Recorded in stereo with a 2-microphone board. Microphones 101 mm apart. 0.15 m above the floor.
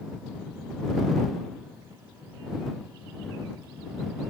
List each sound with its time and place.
Only background noise.